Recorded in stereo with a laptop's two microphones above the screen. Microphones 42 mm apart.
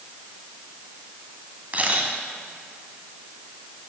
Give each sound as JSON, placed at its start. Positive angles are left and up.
{"t": 1.7, "sound": "a camera shutter", "side_deg": -35, "distance_m": 1.3}